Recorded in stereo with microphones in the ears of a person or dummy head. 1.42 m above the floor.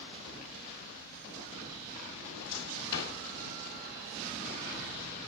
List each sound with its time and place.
2.2 s a drawer: 65° left (ahead or behind), 3.5 m